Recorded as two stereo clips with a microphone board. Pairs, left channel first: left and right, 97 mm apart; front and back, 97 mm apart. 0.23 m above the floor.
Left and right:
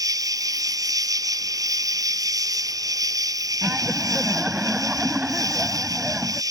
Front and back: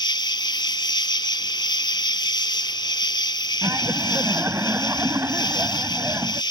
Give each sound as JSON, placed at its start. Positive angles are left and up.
{"t": 0.0, "sound": "an insect", "azimuth_deg": -40}
{"t": 3.6, "sound": "laughter", "azimuth_deg": -155}